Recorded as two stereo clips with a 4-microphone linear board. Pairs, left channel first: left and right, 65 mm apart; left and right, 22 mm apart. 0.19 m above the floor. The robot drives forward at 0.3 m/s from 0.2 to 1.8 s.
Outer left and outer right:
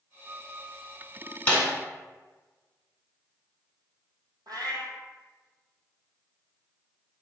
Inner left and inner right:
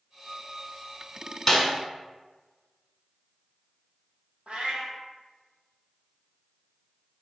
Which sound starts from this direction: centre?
A snare drum, at 1.5 s.